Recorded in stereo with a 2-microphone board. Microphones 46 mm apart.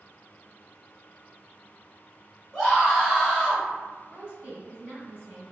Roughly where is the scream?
Centre.